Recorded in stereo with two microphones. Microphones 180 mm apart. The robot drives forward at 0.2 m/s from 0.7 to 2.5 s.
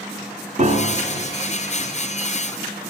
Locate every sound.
0.6 s a piano: 40° right (ahead or behind), 0.7 m; by 1.3 s 45° right (ahead or behind), 0.6 m